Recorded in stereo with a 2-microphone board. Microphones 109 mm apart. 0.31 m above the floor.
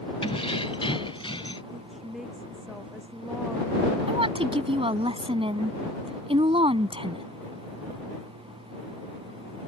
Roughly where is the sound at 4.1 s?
Right.